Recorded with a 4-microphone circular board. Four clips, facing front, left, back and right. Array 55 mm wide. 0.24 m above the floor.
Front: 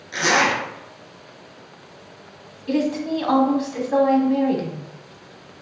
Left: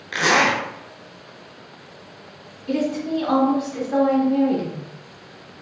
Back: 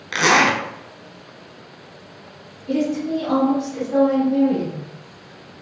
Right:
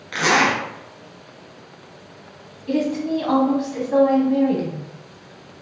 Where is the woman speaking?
15° right, 1.4 m.